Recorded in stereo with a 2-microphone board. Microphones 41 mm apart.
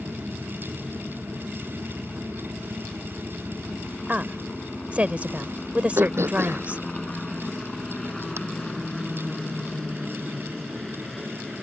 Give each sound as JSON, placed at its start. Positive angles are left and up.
{"t": 0.0, "sound": "a helicopter", "side_deg": 40}
{"t": 4.1, "sound": "a woman speaking", "side_deg": -30}
{"t": 6.0, "sound": "throat clearing", "side_deg": -70}